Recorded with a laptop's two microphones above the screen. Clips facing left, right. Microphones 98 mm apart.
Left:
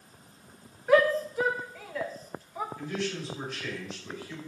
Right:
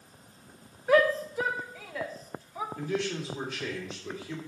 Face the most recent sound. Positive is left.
turn(degrees=-80)